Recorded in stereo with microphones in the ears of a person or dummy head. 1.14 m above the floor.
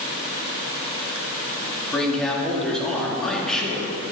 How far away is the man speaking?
About 2 m.